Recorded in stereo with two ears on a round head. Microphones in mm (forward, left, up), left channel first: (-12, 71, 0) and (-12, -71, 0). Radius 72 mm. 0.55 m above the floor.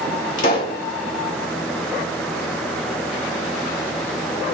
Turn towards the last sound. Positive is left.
turn(degrees=50)  # may be behind; listen again after turning